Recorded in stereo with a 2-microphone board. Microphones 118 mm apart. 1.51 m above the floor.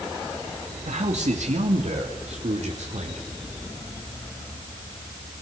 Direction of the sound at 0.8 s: 85° right.